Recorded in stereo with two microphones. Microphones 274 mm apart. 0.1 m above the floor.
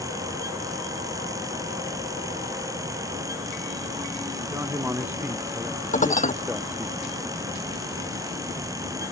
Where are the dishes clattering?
30° left (ahead or behind).